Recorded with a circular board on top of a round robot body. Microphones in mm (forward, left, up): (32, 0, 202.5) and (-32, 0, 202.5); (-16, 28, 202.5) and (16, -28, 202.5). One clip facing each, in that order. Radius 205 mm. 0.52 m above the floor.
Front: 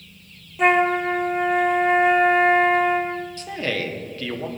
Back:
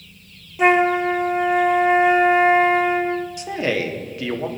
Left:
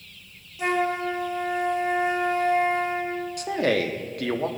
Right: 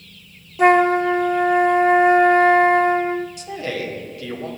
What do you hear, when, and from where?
0.6 s a flute: 95° right, 0.6 m
3.4 s a man speaking: 105° left, 1.5 m